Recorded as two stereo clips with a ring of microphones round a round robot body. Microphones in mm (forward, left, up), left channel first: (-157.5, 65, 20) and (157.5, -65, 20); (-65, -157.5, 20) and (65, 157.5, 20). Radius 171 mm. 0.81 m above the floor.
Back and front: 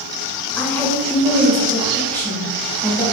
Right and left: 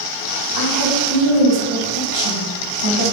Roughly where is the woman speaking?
Left.